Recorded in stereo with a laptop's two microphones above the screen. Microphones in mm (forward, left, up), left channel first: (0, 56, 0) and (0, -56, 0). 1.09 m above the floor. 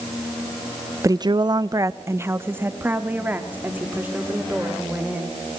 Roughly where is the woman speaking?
Right.